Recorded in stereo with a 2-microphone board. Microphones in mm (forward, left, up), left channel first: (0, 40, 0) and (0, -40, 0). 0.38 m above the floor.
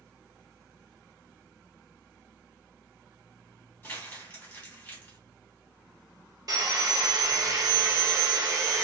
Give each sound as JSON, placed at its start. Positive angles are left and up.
{"t": 3.8, "sound": "crumpling", "side_deg": 20, "distance_m": 1.5}
{"t": 6.5, "sound": "sawing", "side_deg": -50, "distance_m": 0.9}